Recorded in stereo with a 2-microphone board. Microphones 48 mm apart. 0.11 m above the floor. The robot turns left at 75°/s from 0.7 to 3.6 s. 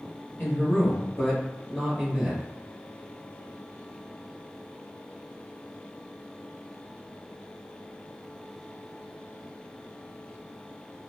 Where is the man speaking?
80° left, 1.8 m; by 2.4 s 50° right, 1.8 m.